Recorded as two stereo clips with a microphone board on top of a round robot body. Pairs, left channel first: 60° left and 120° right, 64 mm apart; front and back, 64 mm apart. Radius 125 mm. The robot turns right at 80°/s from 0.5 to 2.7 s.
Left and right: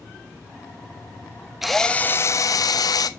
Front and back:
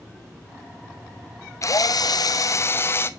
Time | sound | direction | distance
1.6 | a drill | 35° right | 0.9 m